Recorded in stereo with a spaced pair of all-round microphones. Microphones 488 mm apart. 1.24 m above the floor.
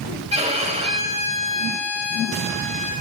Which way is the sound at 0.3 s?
15° right (ahead or behind).